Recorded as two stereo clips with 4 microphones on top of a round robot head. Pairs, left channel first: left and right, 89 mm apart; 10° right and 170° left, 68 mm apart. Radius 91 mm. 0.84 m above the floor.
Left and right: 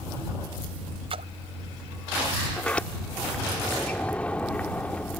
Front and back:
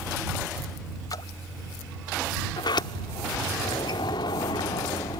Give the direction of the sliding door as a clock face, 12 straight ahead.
12 o'clock.